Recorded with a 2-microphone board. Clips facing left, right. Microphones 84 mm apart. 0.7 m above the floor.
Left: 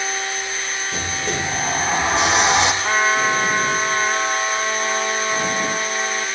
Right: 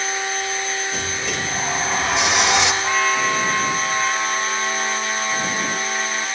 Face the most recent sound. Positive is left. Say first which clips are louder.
# left 2 dB
turn(degrees=25)  # may be behind; listen again after turning